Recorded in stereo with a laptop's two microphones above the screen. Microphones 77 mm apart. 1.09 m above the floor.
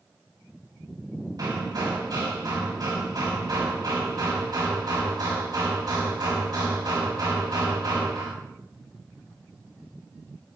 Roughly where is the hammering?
Right.